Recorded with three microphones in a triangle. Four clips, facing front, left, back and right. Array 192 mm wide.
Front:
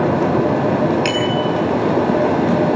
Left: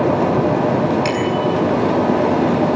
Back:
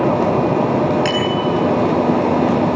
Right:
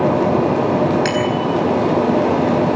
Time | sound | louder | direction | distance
1.1 | a bicycle bell | even, even | 45° right | 7.5 m